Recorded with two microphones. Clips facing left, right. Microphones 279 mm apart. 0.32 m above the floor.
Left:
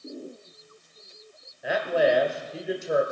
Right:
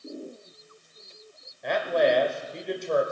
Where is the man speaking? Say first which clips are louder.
Even; 5° left (ahead or behind), 1.5 m.